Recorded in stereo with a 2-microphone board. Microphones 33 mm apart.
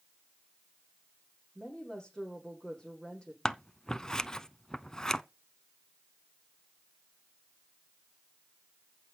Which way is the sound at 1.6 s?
25° left (ahead or behind).